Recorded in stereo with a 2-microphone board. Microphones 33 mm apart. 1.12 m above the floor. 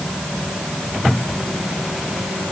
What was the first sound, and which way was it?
Only background noise.